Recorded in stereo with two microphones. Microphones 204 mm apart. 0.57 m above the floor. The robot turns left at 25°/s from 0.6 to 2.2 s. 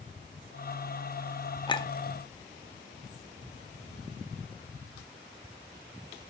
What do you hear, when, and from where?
1.7 s a clink: 20° left (ahead or behind), 0.6 m; by 1.9 s 25° left (ahead or behind), 0.6 m